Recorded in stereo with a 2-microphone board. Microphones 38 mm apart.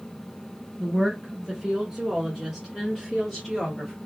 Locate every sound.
0.8 s a woman speaking: 20° right (ahead or behind), 1.7 m; by 4.0 s centre (ahead or behind), 1.9 m